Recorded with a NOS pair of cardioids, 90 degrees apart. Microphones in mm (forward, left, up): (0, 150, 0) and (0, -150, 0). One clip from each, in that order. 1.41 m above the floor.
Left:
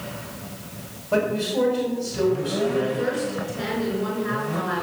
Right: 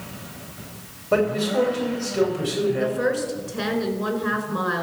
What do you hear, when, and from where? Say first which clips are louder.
1.1 s a man speaking: right 2 dB; 50° right, 4 m
2.8 s a woman speaking: right 1 dB; 55° right, 5 m